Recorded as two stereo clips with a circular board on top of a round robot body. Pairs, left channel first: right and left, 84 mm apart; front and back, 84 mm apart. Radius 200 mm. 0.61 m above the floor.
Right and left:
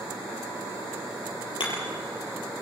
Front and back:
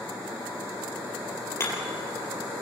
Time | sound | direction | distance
1.6 | hammering | 60° right | 5.5 m